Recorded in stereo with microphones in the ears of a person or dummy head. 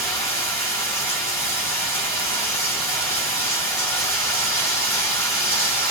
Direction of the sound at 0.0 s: 20° left (ahead or behind).